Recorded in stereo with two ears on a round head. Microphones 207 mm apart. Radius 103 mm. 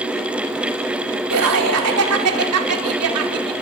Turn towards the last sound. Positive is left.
turn(degrees=-75)  # may be behind; listen again after turning